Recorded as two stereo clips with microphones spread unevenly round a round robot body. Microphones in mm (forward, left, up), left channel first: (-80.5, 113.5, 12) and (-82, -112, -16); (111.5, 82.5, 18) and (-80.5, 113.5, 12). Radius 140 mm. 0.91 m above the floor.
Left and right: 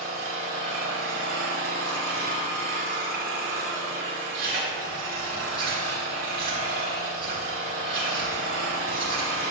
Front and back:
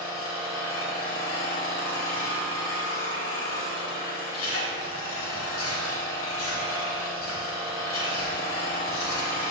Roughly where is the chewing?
Ahead right.